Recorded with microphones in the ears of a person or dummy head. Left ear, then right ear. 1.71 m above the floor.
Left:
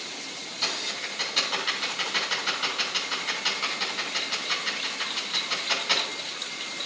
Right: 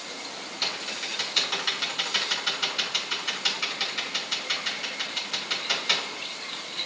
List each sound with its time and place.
0.6 s typing on a keyboard: 25° right (ahead or behind), 7.5 m